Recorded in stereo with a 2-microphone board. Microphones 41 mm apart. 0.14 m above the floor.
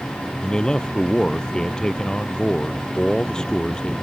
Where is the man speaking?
15° left (ahead or behind).